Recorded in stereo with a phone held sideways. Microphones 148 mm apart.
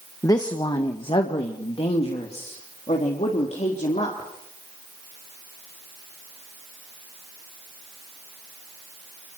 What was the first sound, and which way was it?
A woman speaking, 25° left (ahead or behind).